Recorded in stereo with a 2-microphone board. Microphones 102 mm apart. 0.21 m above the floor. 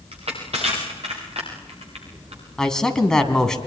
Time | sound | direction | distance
0.1 | crushing | 90° right | 7.5 m
2.6 | a man speaking | 5° left (ahead or behind) | 2 m